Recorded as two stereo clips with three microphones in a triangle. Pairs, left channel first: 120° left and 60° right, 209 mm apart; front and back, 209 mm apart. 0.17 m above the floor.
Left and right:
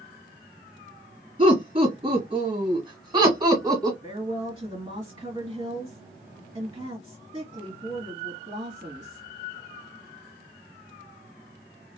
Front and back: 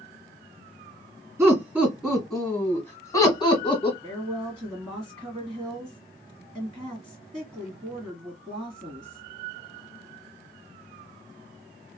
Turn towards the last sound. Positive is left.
turn(degrees=-110)